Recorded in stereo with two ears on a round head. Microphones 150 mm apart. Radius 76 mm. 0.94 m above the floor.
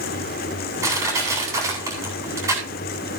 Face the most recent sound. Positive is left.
turn(degrees=-20)  # may be behind; listen again after turning